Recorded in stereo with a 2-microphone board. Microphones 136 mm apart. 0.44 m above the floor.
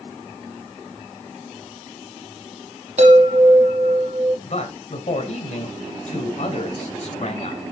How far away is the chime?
About 4.5 m.